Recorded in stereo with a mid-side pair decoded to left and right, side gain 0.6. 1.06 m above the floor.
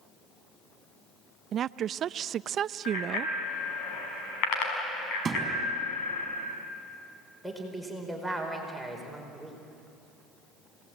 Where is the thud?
30° right, 5 m.